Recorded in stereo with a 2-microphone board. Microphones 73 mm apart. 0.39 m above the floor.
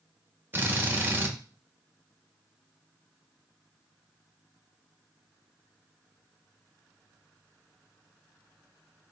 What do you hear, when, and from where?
0.5 s a drill: 30° right (ahead or behind), 0.6 m